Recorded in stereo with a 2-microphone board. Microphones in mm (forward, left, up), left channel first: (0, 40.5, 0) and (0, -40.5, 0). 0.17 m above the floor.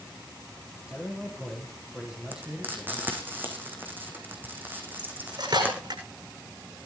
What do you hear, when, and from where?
0.9 s a man speaking: 10° right (ahead or behind), 5 m
2.3 s frying: 25° right (ahead or behind), 4.5 m
5.0 s cutlery clinking: 65° right (ahead or behind), 7 m